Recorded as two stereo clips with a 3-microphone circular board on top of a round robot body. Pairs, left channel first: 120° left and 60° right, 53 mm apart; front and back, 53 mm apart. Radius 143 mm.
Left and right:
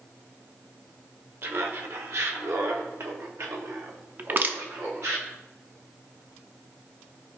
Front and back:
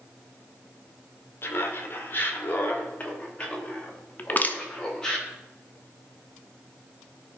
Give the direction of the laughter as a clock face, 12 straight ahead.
1 o'clock.